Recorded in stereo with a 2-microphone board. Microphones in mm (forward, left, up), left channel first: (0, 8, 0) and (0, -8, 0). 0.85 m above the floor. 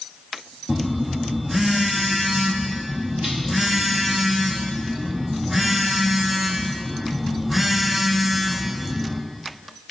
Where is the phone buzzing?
15° right (ahead or behind), 0.9 m.